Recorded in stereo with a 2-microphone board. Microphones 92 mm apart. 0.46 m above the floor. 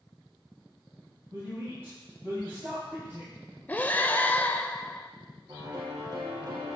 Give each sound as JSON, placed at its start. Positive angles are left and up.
{"t": 1.3, "sound": "a woman speaking", "side_deg": -25, "distance_m": 3.0}
{"t": 3.7, "sound": "breathing", "side_deg": 20, "distance_m": 0.5}
{"t": 5.5, "sound": "a piano", "side_deg": -45, "distance_m": 3.5}